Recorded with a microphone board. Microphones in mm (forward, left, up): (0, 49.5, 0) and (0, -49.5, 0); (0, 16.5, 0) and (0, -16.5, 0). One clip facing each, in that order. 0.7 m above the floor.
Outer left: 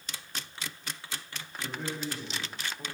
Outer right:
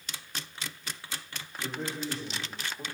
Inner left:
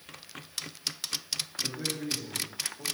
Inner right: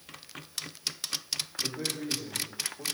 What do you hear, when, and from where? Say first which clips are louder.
1.6 s a man speaking: outer right 1 dB, even; 30° right (ahead or behind), 1.8 m